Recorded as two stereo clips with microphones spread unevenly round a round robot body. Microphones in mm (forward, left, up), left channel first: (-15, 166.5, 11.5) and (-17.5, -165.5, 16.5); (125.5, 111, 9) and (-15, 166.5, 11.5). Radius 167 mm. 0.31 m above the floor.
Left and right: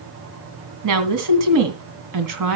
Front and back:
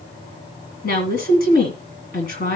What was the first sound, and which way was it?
A woman speaking, 55° right.